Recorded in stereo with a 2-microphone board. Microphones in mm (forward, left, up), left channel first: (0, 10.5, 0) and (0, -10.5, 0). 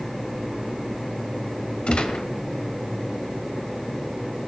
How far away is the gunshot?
About 1.6 m.